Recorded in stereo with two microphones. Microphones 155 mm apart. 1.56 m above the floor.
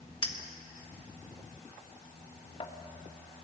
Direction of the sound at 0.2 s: 35° left (ahead or behind).